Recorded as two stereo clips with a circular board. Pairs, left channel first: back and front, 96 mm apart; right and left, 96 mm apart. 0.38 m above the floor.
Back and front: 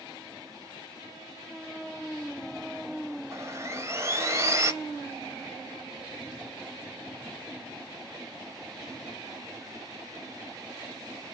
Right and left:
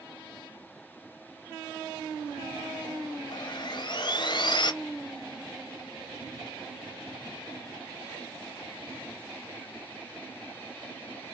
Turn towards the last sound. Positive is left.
turn(degrees=-60)